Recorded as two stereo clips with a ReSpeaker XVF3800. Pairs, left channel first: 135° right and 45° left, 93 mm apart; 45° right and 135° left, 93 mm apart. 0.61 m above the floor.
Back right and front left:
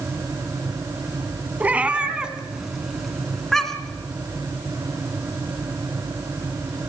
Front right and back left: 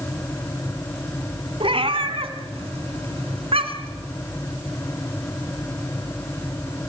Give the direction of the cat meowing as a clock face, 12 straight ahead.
8 o'clock.